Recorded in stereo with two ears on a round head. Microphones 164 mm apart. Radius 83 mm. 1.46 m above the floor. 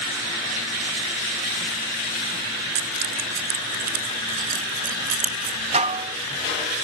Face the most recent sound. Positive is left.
turn(degrees=-35)  # may be behind; listen again after turning